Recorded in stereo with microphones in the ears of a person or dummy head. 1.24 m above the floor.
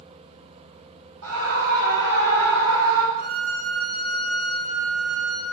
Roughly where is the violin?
Right.